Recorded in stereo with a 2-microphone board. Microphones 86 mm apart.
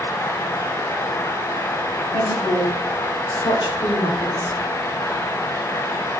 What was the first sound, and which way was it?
A woman speaking, 75° left (ahead or behind).